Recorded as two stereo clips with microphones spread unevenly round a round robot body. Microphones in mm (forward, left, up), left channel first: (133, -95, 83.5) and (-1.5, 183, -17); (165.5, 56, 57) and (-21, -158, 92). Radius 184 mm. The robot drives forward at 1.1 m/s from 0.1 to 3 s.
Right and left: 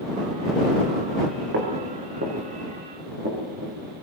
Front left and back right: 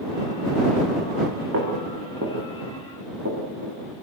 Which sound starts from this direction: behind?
Footsteps, at 1.5 s.